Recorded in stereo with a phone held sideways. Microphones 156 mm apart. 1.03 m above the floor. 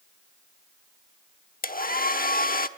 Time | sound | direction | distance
1.6 | a hair dryer | 65° left (ahead or behind) | 1.0 m